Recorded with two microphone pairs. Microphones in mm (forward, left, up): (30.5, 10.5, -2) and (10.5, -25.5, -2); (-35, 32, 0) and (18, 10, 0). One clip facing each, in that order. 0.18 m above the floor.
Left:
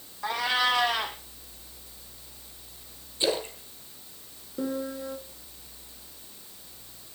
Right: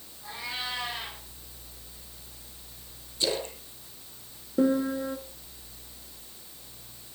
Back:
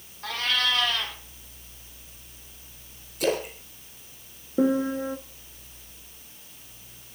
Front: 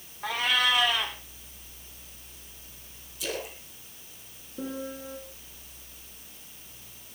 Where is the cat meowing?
55° left, 2 m.